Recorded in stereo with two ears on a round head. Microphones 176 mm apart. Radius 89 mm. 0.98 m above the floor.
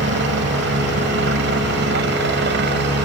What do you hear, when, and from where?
0.0 s a helicopter: 70° right (ahead or behind); by 3.1 s 65° right (ahead or behind)